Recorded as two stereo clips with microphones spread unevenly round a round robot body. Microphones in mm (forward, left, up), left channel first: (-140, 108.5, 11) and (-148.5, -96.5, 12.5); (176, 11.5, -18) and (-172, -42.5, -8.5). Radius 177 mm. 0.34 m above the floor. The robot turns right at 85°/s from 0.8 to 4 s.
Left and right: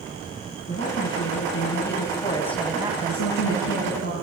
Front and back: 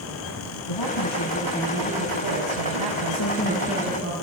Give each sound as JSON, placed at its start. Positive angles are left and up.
{"t": 0.7, "sound": "a woman speaking", "azimuth_deg": 25, "distance_m": 3.5}
{"t": 3.1, "sound": "a woman speaking", "azimuth_deg": 50, "distance_m": 7.5}